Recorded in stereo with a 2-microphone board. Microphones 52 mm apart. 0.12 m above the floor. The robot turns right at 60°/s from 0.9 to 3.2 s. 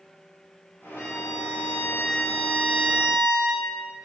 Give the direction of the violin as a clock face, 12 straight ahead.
10 o'clock.